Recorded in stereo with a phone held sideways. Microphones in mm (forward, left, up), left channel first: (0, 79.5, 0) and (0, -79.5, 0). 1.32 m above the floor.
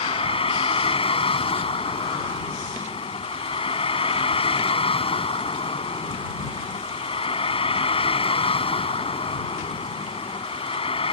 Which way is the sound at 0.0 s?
35° left (ahead or behind).